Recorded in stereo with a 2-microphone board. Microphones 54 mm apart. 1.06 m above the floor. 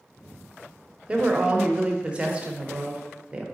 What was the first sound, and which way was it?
A woman speaking, 25° right (ahead or behind).